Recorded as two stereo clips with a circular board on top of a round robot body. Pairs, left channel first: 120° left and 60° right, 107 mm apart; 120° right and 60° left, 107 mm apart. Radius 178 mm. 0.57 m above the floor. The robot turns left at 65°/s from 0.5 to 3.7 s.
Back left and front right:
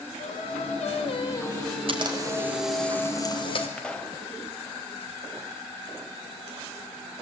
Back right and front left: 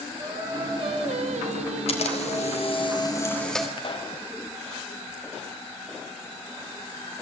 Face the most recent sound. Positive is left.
turn(degrees=-160)